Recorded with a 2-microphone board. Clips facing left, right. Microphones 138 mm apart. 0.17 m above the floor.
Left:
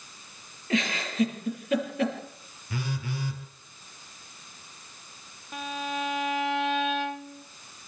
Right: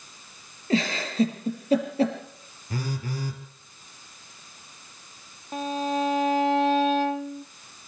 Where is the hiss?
I don't hear a hiss.